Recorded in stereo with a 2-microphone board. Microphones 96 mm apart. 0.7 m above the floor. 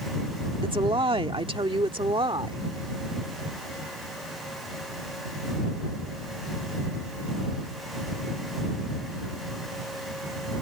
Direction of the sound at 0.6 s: 60° right (ahead or behind).